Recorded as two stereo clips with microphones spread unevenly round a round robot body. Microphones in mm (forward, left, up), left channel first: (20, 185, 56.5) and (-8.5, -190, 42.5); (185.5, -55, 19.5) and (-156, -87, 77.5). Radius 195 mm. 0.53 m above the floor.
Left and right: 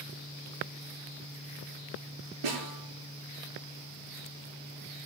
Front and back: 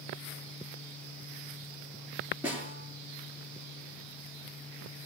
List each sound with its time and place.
2.4 s a snare drum: 90° right, 6 m